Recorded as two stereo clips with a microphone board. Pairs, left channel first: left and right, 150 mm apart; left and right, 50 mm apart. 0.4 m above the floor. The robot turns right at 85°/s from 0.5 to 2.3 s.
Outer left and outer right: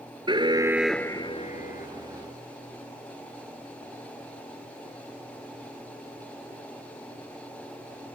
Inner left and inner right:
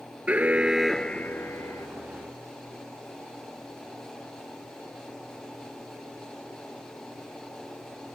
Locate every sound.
0.3 s an alarm: 30° right; by 1.9 s 85° left